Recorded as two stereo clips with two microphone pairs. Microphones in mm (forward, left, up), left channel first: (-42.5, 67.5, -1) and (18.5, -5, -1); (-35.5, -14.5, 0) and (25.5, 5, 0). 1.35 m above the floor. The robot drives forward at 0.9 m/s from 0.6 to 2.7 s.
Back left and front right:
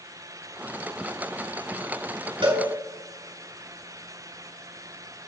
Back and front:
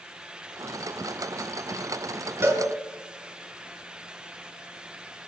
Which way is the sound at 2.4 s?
25° right.